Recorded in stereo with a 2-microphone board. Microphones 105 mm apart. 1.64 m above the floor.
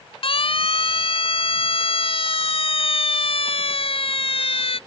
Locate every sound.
0.2 s a siren: 60° left (ahead or behind)